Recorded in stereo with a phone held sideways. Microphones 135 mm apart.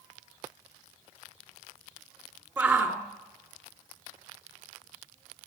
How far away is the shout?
About 2.5 m.